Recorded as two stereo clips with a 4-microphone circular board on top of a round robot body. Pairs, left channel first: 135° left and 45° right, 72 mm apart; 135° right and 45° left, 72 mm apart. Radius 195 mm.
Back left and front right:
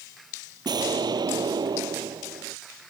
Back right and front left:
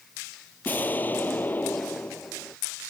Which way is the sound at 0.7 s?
70° right.